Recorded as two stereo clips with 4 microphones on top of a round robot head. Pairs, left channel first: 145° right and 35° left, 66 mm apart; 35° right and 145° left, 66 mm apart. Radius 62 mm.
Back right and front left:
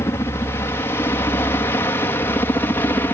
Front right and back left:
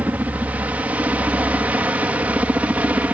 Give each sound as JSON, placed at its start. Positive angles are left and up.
{"t": 0.0, "sound": "a helicopter", "azimuth_deg": -165}